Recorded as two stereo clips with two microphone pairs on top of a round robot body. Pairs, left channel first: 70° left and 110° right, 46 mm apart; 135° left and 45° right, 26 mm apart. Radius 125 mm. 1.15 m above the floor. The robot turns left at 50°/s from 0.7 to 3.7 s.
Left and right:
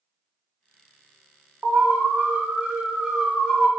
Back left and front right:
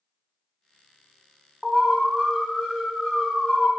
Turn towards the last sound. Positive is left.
turn(degrees=150)